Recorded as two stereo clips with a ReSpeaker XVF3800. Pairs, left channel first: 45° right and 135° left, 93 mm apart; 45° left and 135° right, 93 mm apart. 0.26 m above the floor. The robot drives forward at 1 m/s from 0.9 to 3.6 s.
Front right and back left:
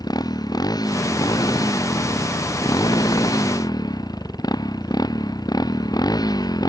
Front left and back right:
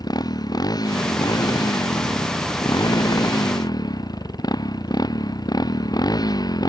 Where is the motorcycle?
Straight ahead.